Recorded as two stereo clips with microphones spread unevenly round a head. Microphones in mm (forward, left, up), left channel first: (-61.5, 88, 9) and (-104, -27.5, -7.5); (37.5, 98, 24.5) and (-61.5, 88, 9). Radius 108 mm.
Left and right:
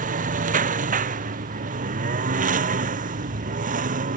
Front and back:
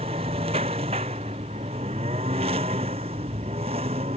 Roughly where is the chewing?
I don't hear chewing.